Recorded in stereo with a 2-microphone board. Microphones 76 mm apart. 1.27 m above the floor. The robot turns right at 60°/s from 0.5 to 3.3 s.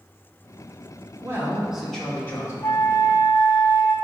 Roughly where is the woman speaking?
Ahead right.